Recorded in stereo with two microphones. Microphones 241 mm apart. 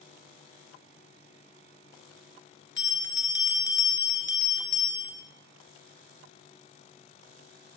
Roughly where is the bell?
Left.